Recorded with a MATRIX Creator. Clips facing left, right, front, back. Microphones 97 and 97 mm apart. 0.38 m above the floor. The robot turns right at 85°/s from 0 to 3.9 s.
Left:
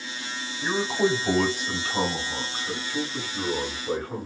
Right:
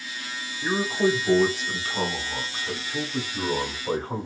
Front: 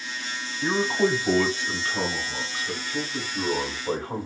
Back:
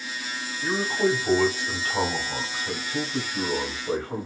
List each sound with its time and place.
0.6 s a man speaking: 35° left, 1.9 m; by 4.3 s 45° right, 1.9 m